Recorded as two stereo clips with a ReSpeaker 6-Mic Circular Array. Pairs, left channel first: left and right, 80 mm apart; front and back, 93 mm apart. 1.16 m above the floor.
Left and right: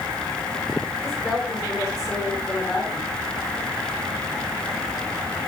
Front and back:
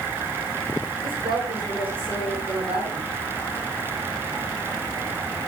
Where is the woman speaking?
Straight behind, 7.5 m.